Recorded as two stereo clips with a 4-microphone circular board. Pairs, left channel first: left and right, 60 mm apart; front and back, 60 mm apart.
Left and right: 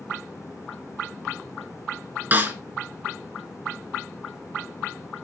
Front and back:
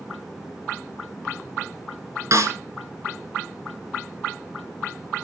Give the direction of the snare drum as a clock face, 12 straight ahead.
5 o'clock.